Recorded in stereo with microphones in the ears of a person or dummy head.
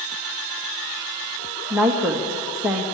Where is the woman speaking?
15° right (ahead or behind), 1.5 m.